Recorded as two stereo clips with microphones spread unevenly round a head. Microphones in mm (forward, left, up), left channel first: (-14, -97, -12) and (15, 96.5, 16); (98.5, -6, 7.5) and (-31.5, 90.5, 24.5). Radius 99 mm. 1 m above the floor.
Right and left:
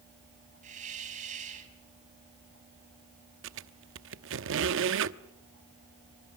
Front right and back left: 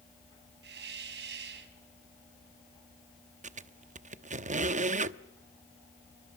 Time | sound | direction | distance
0.6 | a hiss | 135° left | 4.5 m
3.4 | a squeak | 100° left | 1.0 m